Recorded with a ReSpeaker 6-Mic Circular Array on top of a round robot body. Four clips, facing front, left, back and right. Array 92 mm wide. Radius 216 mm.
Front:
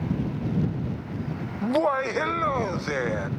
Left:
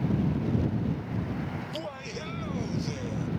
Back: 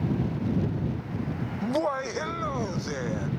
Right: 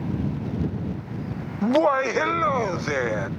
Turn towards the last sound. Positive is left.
turn(degrees=-65)